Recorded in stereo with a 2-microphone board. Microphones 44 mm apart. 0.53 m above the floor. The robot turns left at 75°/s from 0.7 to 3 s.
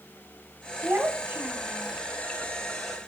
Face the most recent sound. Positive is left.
turn(degrees=120)